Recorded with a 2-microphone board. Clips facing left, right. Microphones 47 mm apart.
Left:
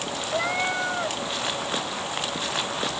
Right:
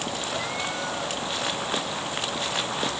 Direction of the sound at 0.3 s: 35° left (ahead or behind).